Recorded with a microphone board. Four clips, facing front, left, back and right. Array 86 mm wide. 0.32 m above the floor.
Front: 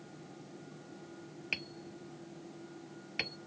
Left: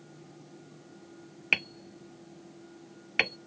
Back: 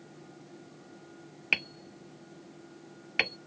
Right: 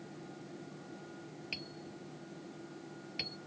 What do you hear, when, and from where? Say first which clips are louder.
1.5 s hammering: left 9 dB, back 9 dB; 120° left